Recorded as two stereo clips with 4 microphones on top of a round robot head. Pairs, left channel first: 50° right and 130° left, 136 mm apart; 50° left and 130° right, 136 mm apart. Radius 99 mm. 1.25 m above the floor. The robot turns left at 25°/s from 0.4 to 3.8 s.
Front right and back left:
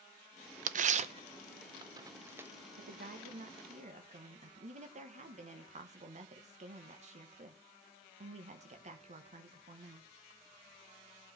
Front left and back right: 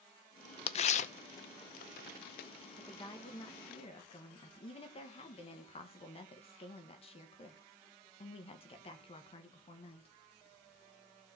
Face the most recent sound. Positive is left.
turn(degrees=95)